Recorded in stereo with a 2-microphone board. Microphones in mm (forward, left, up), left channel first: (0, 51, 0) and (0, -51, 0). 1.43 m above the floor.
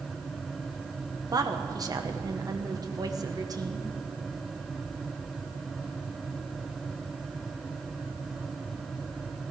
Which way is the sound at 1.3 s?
40° right (ahead or behind).